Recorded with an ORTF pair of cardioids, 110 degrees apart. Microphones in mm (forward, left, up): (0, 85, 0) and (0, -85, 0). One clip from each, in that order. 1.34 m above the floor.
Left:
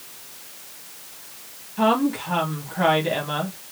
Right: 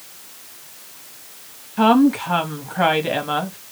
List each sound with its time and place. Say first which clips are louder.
1.8 s a woman speaking: right 5 dB; 35° right, 1.9 m